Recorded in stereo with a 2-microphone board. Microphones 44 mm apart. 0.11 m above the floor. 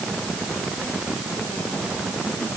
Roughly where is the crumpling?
No crumpling in this recording.